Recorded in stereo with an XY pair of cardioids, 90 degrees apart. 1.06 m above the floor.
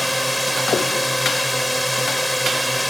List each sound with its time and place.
0.0 s a drone: 5° right